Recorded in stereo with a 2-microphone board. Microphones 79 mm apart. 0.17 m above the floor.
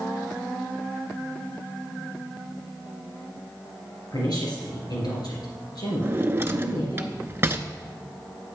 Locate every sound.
4.1 s a woman speaking: 60° left (ahead or behind), 3.5 m
6.0 s a drawer: 30° right (ahead or behind), 0.6 m